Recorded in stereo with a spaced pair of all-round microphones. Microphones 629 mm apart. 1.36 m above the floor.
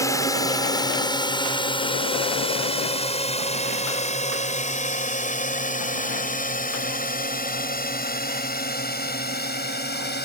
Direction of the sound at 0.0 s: 5° left (ahead or behind).